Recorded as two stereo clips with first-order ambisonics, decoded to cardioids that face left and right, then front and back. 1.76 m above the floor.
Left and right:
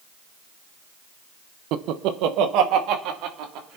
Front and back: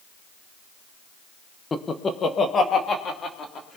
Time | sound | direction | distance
1.7 | laughter | 75° right | 1.1 m